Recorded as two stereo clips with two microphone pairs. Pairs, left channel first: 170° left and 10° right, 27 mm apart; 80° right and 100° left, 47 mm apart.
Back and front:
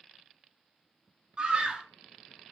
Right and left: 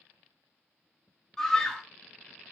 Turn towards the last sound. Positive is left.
turn(degrees=-10)